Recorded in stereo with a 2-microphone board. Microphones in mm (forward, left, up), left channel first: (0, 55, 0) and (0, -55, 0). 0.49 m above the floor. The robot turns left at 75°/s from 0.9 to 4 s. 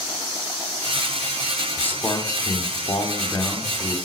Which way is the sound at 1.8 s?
160° left.